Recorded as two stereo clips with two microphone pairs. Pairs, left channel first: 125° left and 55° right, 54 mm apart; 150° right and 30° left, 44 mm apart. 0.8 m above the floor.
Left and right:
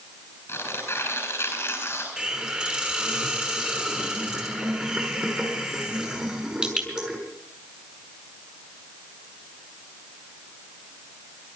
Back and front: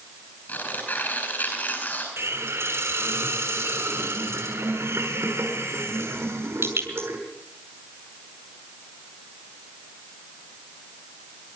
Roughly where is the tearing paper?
Behind.